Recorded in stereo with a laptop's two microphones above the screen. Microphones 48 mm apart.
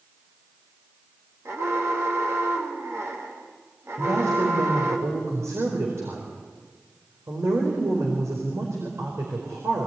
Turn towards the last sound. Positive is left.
turn(degrees=-80)